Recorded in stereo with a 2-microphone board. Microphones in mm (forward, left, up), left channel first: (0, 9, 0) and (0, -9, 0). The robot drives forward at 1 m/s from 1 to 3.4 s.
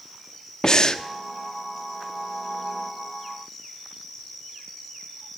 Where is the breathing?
40° left (ahead or behind), 1.3 m.